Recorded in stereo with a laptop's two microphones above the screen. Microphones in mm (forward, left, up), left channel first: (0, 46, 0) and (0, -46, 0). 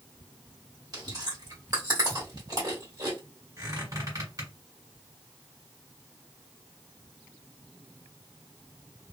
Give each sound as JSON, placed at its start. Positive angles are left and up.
{"t": 0.9, "sound": "chewing", "side_deg": -45, "distance_m": 1.6}
{"t": 3.6, "sound": "a squeak", "side_deg": -40, "distance_m": 1.6}